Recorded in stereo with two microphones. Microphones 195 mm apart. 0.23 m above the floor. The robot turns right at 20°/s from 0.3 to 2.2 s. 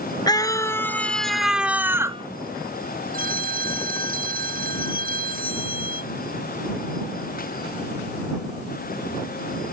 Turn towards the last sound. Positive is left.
turn(degrees=-45)  # may be behind; listen again after turning